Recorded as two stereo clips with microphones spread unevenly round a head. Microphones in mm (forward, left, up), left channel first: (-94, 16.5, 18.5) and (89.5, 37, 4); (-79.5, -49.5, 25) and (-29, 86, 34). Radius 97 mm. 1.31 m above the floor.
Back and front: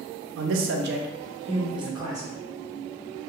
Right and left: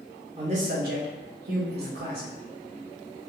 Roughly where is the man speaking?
Ahead.